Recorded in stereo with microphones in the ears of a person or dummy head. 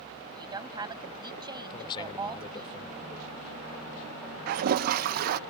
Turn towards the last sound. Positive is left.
turn(degrees=-55)  # may be behind; listen again after turning